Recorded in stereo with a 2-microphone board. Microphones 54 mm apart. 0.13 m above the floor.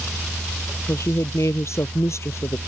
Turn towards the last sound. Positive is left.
turn(degrees=60)  # may be behind; listen again after turning